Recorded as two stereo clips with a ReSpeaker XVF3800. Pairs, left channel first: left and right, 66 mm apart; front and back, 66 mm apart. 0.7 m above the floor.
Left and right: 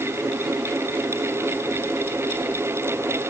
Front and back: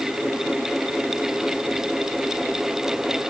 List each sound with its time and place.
Only background noise.